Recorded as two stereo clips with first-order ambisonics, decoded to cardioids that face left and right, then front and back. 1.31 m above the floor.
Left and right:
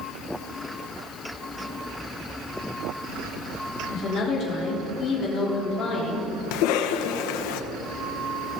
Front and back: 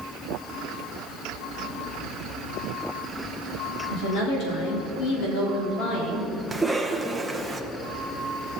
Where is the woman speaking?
35° left, 3.5 m.